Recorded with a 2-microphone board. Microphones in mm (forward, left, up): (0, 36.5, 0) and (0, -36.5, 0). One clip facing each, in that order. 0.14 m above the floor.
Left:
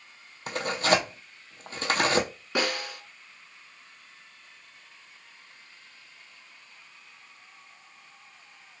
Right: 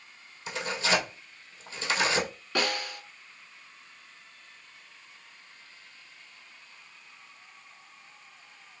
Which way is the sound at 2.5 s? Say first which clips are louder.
Left 1 dB; 15° left (ahead or behind).